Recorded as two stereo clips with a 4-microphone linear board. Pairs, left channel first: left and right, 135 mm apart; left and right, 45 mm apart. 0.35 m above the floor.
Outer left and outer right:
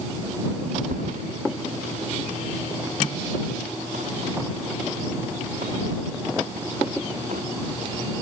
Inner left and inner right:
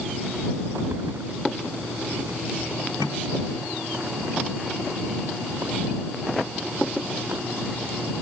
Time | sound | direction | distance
0.9 | a thud | 70° right (ahead or behind) | ?